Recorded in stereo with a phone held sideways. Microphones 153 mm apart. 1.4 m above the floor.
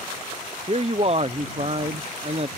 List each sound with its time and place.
0.7 s a man speaking: 40° right (ahead or behind)